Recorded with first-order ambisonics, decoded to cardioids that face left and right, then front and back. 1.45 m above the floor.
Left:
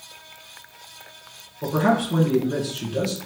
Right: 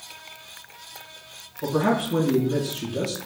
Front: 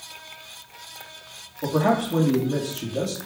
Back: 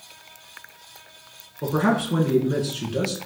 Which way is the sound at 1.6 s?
160° left.